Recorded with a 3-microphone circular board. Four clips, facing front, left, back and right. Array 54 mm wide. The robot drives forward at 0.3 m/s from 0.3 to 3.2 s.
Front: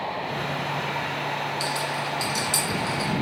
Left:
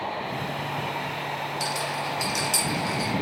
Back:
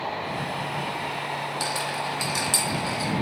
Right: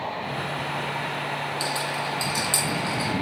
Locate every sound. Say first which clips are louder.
1.6 s a rattle: right 1 dB, front 1 dB; 160° left, 1.1 m; by 3.1 s 165° left, 1.6 m